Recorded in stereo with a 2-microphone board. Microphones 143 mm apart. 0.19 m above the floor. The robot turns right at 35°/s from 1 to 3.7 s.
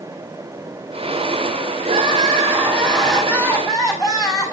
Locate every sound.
1.8 s crying: 45° right, 5.5 m; by 4.5 s 25° left, 5.5 m